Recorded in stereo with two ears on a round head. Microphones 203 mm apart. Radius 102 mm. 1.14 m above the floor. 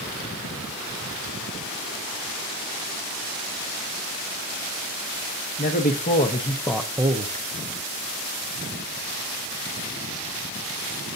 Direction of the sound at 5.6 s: 40° left (ahead or behind).